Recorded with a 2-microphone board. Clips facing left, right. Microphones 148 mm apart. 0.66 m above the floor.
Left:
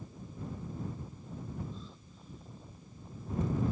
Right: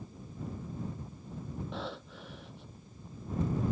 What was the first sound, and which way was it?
Breathing, 80° right.